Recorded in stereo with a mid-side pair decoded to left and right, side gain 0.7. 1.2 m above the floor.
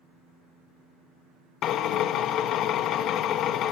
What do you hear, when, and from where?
1.6 s a drill: 50° left, 1.3 m